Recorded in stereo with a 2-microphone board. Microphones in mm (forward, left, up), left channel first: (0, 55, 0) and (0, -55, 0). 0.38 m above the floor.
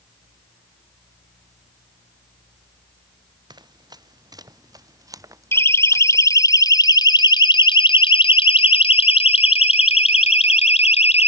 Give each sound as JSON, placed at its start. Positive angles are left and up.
{"t": 3.5, "sound": "running footsteps", "side_deg": -40}
{"t": 5.5, "sound": "a siren", "side_deg": 25}